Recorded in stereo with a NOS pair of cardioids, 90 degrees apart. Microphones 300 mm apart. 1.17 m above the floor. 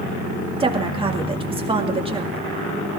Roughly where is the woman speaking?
Ahead.